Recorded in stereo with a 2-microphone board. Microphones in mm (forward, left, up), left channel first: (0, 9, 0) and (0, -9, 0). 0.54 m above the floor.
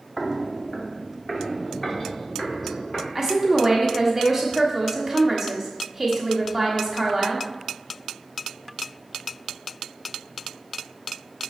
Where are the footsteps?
5° left (ahead or behind), 0.8 m; by 3.0 s 25° left (ahead or behind), 4 m.